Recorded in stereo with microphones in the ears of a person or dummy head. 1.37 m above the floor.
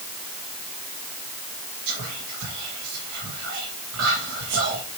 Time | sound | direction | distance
1.9 | whispering | 75° right (ahead or behind) | 1.4 m